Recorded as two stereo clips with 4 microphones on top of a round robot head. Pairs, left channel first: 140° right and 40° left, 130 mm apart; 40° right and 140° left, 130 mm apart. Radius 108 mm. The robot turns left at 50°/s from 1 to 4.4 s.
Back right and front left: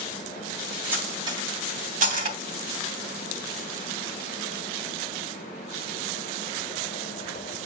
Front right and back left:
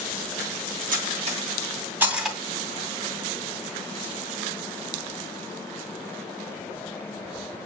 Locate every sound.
0.9 s cutlery clinking: 115° left, 2.5 m; by 2.4 s 45° left, 2.5 m